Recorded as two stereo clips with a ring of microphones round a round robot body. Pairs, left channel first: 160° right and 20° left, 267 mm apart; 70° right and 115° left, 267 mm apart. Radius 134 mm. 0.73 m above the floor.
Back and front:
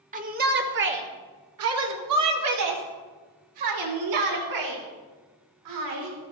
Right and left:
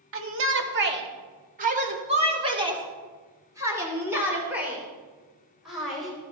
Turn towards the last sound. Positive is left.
turn(degrees=25)